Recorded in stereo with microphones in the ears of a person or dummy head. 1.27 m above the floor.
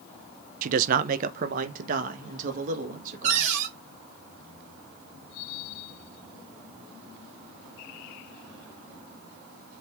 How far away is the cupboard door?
About 2.5 m.